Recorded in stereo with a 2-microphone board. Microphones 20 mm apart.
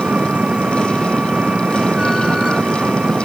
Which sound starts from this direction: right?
An engine running, at 0.0 s.